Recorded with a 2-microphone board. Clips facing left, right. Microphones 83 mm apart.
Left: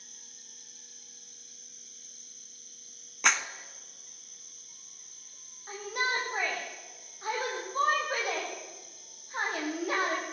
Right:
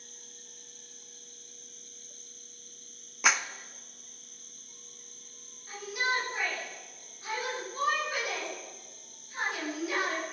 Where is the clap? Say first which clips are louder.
Even; 5° right (ahead or behind), 0.9 m.